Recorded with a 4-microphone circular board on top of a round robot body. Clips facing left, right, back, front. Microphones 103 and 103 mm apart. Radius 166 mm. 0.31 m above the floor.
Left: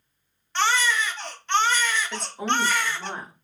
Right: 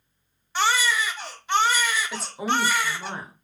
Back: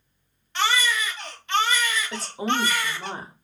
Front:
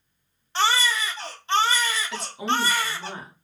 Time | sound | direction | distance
0.6 | a baby crying | 15° right | 0.8 m
2.1 | a woman speaking | 170° right | 1.0 m